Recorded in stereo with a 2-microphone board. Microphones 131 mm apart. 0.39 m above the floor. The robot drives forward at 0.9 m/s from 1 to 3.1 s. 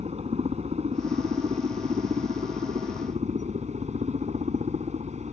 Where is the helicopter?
55° right (ahead or behind); by 5.3 s 60° right (ahead or behind).